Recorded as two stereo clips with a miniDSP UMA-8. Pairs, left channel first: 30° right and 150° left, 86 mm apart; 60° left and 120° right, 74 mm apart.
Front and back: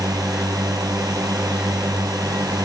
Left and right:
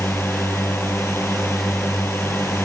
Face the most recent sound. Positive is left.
turn(degrees=110)